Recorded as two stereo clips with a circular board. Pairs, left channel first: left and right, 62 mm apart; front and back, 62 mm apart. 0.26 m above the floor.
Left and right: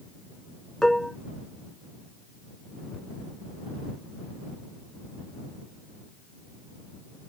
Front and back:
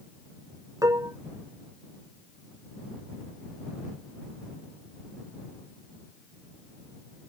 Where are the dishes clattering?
170° left.